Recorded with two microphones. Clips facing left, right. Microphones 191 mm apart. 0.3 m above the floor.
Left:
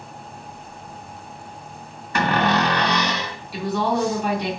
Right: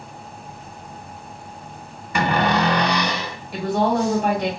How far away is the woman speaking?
About 2.5 m.